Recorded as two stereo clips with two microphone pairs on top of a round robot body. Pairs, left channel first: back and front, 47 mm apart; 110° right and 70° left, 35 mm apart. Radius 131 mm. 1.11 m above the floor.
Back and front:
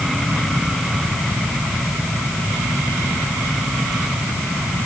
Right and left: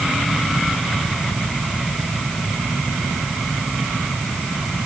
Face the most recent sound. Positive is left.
No sound to turn to.